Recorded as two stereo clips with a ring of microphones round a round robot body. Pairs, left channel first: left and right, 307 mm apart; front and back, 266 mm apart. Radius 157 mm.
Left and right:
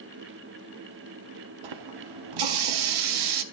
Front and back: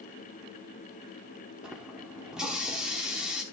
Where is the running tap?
90° right, 0.9 m.